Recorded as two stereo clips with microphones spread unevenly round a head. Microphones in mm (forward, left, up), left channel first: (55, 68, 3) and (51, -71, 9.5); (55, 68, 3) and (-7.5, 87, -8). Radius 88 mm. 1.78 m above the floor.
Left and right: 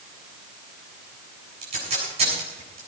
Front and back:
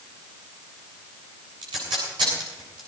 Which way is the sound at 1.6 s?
150° right.